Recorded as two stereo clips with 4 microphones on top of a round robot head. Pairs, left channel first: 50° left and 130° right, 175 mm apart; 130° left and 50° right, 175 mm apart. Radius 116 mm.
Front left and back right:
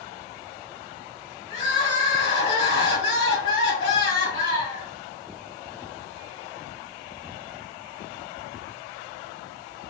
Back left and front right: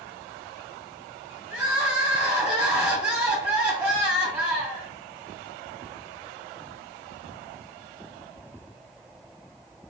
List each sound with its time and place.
1.5 s crying: 35° left, 2 m